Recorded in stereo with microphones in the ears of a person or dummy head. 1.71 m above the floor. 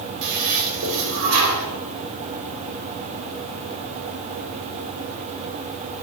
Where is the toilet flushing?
70° right (ahead or behind), 5.5 m.